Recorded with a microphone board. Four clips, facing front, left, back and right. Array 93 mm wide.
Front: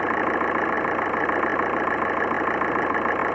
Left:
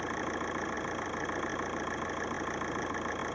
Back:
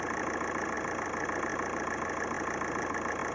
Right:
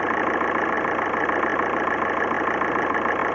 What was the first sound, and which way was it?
An engine running, 50° right.